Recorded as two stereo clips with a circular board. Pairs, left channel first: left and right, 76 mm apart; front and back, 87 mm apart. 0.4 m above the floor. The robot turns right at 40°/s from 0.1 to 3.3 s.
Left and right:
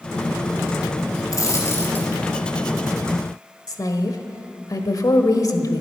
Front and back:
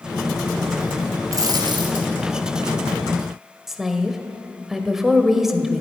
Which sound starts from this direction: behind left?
A dropped coin, at 1.3 s.